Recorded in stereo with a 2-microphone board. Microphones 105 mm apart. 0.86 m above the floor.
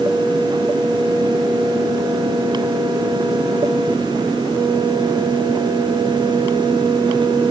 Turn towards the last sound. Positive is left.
No sound to turn to.